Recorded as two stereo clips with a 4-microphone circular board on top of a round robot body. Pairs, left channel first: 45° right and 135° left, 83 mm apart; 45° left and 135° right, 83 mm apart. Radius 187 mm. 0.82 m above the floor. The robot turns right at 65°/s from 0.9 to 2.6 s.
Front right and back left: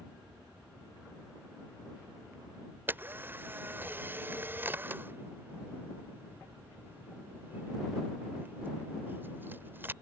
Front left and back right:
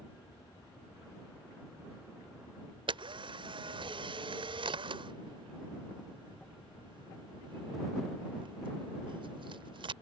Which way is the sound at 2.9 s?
155° right.